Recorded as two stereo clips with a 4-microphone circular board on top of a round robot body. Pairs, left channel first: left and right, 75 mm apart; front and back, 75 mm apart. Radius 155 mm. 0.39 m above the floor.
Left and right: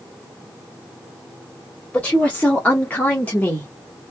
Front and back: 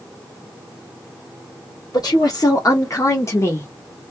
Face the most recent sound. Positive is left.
turn(degrees=40)